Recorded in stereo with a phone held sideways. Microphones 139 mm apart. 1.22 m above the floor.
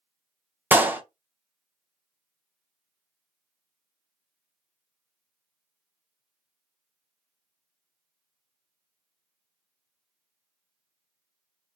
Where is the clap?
15° right (ahead or behind), 0.6 m.